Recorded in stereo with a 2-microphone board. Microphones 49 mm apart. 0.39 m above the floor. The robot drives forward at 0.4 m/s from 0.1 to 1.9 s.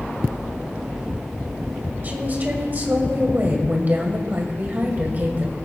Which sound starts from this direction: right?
A woman speaking, at 2.0 s.